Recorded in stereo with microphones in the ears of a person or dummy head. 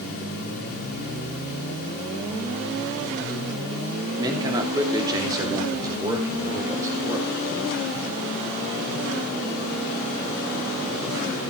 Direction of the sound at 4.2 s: 25° right (ahead or behind).